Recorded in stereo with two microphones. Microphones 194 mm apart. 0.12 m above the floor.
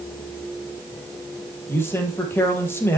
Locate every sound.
1.7 s a man speaking: 10° left (ahead or behind), 3.5 m